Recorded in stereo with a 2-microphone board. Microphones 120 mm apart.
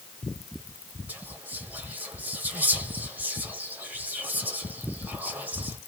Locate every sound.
1.1 s whispering: 15° right (ahead or behind), 0.8 m